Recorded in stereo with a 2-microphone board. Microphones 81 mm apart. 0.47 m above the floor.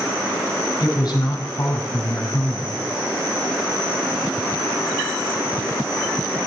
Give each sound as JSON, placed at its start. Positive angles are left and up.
{"t": 0.8, "sound": "a woman speaking", "side_deg": 55, "distance_m": 4.5}